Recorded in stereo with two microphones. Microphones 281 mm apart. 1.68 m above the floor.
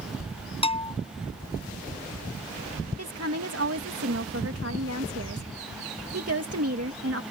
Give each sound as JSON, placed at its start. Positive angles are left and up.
{"t": 0.6, "sound": "a bell", "side_deg": 20}
{"t": 3.0, "sound": "a woman speaking", "side_deg": -55}